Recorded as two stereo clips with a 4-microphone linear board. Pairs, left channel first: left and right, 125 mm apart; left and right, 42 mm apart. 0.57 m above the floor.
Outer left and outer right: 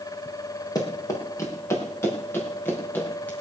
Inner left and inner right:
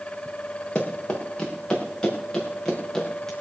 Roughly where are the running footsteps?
Left.